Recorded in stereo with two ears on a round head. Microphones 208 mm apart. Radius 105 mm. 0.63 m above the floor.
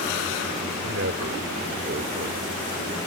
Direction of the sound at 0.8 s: 55° right (ahead or behind).